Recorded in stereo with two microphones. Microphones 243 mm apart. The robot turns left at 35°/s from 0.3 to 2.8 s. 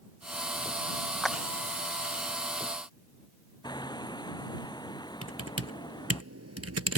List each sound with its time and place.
1.2 s a clap: centre (ahead or behind); by 1.4 s 5° left (ahead or behind)
3.6 s hammering: 15° left (ahead or behind)
5.2 s typing on a keyboard: 85° right